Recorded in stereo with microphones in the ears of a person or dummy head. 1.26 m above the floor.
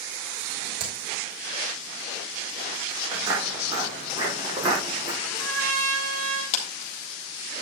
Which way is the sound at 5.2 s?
85° right.